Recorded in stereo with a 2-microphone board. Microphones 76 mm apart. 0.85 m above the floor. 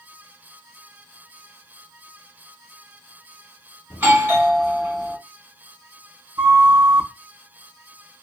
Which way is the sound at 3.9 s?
30° right (ahead or behind).